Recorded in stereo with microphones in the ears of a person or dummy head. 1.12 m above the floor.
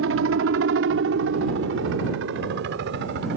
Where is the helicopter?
65° right (ahead or behind); by 3.4 s 60° right (ahead or behind).